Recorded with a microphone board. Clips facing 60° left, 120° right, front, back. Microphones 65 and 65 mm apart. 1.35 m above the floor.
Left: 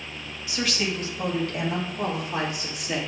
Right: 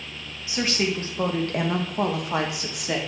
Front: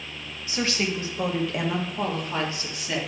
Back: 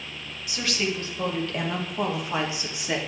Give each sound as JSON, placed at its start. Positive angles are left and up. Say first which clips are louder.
{"t": 0.5, "sound": "a woman speaking", "louder": "right 3 dB, front 2 dB", "azimuth_deg": -55, "distance_m": 1.5}